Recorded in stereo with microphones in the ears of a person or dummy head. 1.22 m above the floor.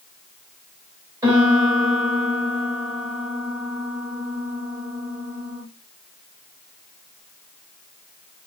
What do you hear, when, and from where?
1.2 s a piano: 15° right (ahead or behind), 1.5 m